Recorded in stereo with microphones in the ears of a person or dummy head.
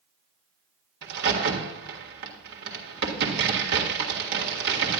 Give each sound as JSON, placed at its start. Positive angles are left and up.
{"t": 1.0, "sound": "a crack", "side_deg": -65, "distance_m": 2.0}